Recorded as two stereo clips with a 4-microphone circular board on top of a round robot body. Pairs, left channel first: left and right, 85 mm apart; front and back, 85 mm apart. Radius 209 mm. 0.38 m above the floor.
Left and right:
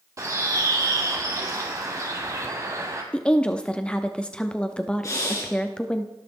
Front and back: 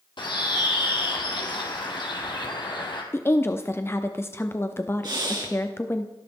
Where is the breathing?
140° left, 4.5 m.